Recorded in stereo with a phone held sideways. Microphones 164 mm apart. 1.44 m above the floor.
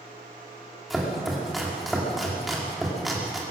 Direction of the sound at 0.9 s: Centre (ahead or behind).